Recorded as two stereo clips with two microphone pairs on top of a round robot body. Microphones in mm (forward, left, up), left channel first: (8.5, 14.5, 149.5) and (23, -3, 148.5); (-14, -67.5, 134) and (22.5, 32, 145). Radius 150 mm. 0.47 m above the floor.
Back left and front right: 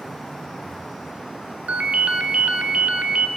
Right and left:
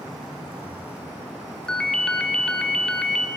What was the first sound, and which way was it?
A ringtone, 30° right.